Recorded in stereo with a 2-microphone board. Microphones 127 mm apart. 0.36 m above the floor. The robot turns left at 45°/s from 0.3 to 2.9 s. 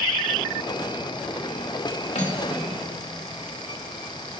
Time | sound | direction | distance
2.1 | cutlery clinking | 90° left | 1.1 m